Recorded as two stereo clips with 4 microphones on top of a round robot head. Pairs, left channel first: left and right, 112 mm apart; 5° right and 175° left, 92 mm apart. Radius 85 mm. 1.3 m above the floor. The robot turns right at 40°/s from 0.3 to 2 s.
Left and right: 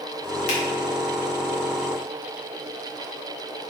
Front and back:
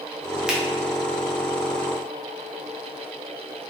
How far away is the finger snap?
About 1.2 m.